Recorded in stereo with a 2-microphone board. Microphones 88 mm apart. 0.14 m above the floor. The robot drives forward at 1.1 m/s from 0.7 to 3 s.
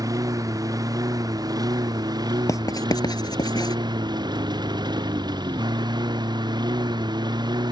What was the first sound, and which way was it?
A lawn mower, 45° right (ahead or behind).